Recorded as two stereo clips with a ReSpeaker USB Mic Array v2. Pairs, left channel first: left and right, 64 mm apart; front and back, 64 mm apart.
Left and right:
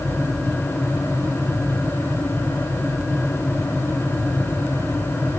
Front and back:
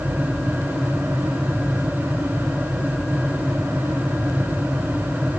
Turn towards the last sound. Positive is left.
No sound to turn to.